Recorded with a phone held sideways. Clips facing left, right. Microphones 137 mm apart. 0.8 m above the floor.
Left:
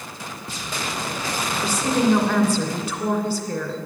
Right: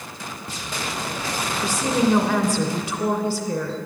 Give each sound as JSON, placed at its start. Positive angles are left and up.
{"t": 1.6, "sound": "a woman speaking", "side_deg": -5, "distance_m": 2.0}